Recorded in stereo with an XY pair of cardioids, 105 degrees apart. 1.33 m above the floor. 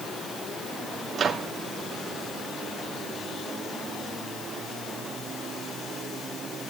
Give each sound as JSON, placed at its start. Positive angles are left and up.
{"t": 1.1, "sound": "a microwave", "azimuth_deg": -45, "distance_m": 2.5}